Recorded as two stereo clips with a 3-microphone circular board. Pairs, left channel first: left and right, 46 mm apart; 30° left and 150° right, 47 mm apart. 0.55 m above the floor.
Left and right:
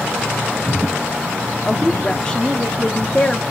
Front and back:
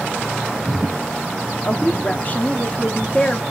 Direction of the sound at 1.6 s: 30° left.